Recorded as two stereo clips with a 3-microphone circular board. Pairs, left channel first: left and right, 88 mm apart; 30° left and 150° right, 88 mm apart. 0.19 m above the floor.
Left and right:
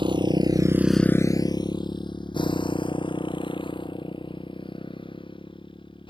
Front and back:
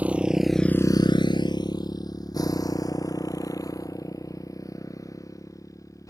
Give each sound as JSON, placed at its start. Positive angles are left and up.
{"t": 0.0, "sound": "a motorcycle", "azimuth_deg": -80}